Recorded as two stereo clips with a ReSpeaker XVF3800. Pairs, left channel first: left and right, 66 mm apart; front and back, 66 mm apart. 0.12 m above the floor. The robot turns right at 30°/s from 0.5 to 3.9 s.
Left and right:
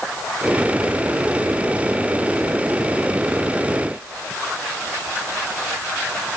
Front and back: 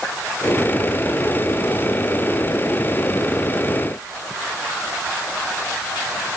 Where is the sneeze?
I don't hear a sneeze.